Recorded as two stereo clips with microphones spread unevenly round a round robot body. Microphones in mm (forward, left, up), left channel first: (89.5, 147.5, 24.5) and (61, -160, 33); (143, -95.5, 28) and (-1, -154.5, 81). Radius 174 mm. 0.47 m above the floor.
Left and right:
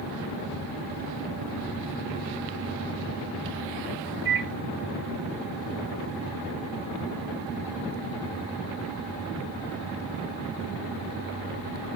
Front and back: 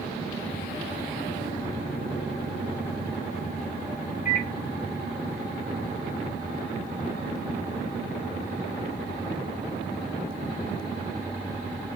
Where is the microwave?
20° right, 4 m.